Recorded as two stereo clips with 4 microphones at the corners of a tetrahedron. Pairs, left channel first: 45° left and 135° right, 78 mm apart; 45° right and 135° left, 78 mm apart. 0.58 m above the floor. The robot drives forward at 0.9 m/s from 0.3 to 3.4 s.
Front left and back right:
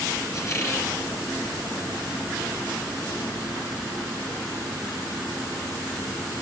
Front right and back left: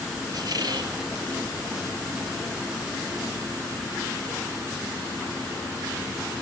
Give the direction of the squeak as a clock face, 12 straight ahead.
9 o'clock.